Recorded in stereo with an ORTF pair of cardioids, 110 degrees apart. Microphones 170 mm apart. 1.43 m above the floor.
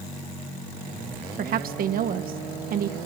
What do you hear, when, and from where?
1.4 s a woman speaking: 60° right, 1.5 m